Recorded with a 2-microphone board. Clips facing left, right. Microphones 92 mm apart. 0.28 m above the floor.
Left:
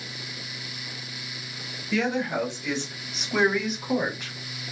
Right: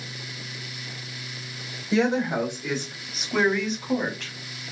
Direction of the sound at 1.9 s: 30° right (ahead or behind).